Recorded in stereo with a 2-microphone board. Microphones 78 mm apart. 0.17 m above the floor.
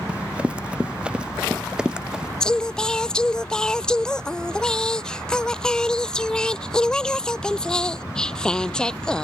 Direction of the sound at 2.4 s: 10° left (ahead or behind).